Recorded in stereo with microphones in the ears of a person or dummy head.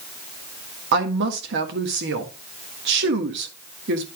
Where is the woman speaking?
50° right (ahead or behind), 1.7 m.